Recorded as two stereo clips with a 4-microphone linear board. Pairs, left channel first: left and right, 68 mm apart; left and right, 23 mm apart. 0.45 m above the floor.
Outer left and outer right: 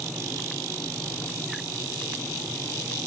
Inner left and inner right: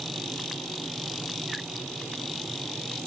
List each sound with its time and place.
Only background noise.